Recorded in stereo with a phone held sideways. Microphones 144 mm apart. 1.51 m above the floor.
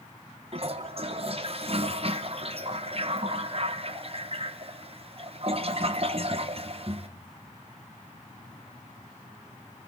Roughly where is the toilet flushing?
Right.